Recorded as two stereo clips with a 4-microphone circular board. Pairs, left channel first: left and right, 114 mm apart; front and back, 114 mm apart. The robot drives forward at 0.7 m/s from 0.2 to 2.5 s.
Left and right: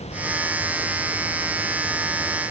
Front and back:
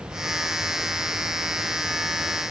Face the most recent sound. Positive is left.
No sound to turn to.